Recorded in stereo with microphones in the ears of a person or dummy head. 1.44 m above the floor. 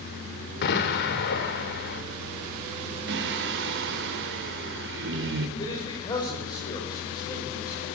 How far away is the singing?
About 2.5 m.